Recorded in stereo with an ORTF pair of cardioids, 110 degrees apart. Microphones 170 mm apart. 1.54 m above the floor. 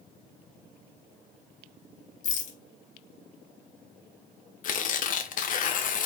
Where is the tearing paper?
50° left, 1.3 m.